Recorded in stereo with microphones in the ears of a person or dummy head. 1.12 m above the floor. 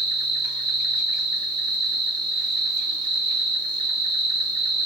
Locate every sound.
0.0 s an insect: 25° right (ahead or behind), 1.7 m